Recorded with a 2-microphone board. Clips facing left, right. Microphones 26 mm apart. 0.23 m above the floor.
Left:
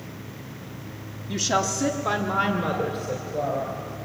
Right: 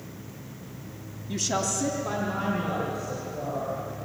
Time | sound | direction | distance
1.3 | a woman speaking | 15° left (ahead or behind) | 1.2 m